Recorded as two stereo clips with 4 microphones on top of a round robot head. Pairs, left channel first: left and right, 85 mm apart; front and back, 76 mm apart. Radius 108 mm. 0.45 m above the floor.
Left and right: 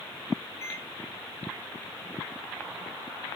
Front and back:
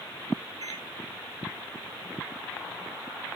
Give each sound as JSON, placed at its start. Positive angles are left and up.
{"t": 0.6, "sound": "a microwave", "azimuth_deg": 145, "distance_m": 4.0}